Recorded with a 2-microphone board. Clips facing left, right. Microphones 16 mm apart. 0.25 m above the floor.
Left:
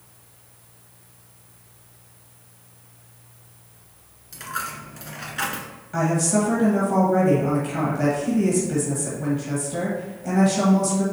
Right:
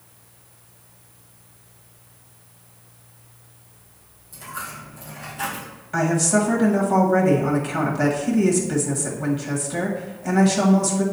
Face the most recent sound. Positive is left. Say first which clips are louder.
# right 2 dB
turn(degrees=-25)  # may be behind; listen again after turning